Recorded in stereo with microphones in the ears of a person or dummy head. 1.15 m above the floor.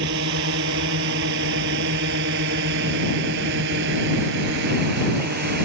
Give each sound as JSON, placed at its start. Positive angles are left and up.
{"t": 0.0, "sound": "a drone", "side_deg": -65}